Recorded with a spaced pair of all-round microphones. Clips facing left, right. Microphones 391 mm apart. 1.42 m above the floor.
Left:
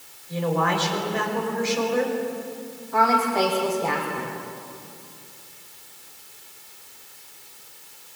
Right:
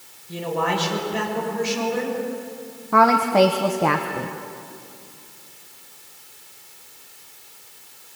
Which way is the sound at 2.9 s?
75° right (ahead or behind).